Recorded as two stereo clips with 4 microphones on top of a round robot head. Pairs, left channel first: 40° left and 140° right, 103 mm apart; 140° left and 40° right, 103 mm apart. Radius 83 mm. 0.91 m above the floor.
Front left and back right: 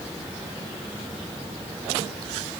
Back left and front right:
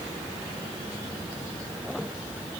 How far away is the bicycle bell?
I don't hear a bicycle bell.